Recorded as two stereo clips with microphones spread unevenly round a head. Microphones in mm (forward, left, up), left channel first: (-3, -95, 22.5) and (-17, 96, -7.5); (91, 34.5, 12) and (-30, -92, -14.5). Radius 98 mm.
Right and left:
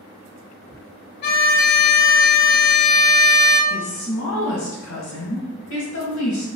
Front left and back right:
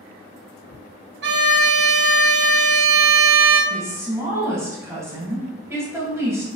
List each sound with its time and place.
1.2 s a violin: 130° right, 0.5 m
3.7 s a woman speaking: 60° right, 1.3 m